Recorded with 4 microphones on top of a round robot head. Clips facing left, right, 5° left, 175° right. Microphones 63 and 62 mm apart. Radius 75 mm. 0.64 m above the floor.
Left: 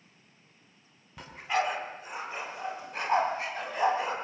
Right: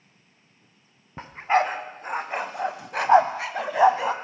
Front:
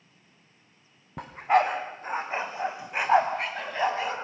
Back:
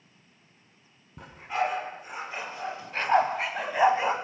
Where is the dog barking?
30° right, 1.9 m; by 4.1 s 100° right, 1.7 m.